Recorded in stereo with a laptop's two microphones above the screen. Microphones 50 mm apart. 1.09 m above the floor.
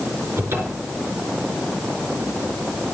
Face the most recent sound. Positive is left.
turn(degrees=-55)  # may be behind; listen again after turning